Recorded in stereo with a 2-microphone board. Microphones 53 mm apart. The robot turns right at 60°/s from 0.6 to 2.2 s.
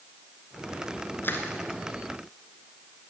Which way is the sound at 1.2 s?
40° left (ahead or behind).